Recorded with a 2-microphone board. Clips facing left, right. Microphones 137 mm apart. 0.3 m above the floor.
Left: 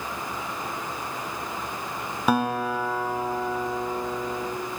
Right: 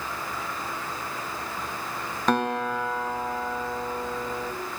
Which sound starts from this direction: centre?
A guitar, at 2.3 s.